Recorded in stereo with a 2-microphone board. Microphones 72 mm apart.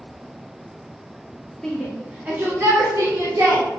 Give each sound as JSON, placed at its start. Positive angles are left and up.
{"t": 1.6, "sound": "a shout", "side_deg": 10, "distance_m": 0.7}